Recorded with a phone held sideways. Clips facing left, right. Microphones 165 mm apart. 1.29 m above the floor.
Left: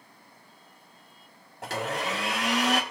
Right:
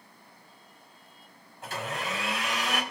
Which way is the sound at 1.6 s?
75° left (ahead or behind).